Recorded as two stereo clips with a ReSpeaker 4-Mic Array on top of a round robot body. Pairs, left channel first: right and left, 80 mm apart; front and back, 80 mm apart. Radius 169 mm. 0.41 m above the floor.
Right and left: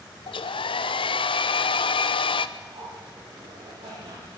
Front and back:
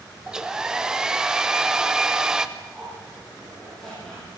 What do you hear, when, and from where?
0.3 s a hair dryer: 100° right, 0.6 m
2.6 s a zipper: 85° left, 9.5 m